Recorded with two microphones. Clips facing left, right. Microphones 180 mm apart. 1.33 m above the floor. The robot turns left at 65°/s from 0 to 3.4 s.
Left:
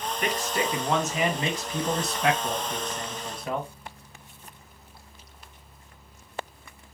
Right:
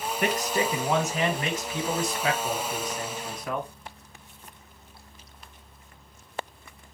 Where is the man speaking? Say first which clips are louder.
Right 2 dB; 125° right, 1.0 m; by 3.7 s 25° left, 1.0 m.